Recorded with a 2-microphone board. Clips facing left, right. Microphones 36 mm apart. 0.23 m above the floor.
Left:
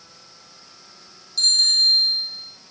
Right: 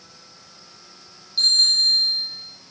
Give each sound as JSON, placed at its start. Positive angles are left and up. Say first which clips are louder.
{"t": 1.4, "sound": "a bicycle bell", "louder": "even", "side_deg": -20, "distance_m": 7.0}